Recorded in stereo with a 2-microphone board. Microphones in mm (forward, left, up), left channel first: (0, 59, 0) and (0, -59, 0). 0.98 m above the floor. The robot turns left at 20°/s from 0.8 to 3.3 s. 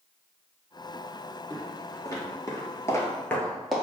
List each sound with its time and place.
1.5 s footsteps: 15° left (ahead or behind), 1.6 m; by 3.8 s 5° right (ahead or behind), 1.0 m